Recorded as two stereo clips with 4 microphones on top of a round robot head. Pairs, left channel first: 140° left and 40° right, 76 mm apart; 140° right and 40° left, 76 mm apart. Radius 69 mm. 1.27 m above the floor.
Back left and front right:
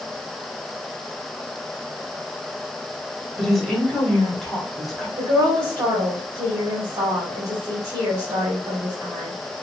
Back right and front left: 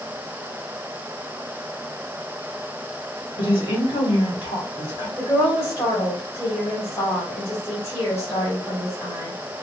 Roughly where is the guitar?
I don't hear a guitar.